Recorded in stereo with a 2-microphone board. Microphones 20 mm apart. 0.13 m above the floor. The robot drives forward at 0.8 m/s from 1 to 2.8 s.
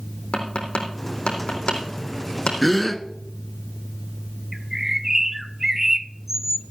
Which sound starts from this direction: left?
Tapping, at 0.3 s.